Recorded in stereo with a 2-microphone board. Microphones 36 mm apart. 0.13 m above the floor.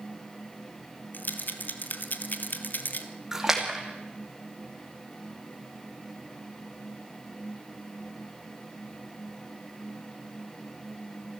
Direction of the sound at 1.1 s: 65° left (ahead or behind).